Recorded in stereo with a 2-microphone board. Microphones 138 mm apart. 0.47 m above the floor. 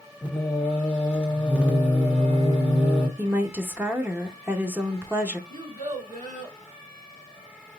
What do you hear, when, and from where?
0.2 s singing: 10° right (ahead or behind), 1.2 m
3.2 s a woman speaking: 15° right (ahead or behind), 0.7 m
5.5 s a child speaking: 70° right (ahead or behind), 2.5 m